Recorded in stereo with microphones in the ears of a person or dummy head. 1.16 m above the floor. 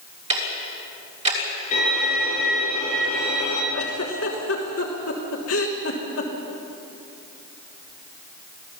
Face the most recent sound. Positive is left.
turn(degrees=60)  # may be behind; listen again after turning